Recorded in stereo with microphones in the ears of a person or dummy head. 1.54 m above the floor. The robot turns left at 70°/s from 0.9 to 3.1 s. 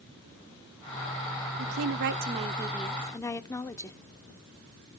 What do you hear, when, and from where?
1.6 s a woman speaking: 95° right, 0.7 m; by 4.0 s 160° left, 0.7 m